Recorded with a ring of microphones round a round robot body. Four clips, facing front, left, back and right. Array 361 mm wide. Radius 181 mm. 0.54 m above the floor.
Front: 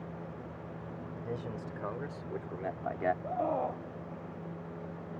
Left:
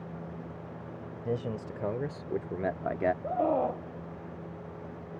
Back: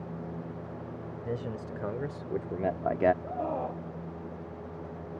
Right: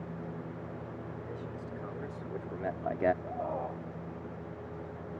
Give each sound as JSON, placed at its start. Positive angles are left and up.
{"t": 1.2, "sound": "a man speaking", "azimuth_deg": 120}
{"t": 3.2, "sound": "a scream", "azimuth_deg": 95}